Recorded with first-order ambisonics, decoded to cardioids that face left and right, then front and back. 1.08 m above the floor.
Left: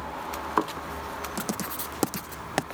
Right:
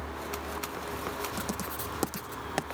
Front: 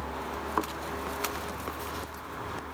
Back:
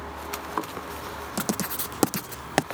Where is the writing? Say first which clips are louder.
Left 2 dB, back 5 dB; 165° left.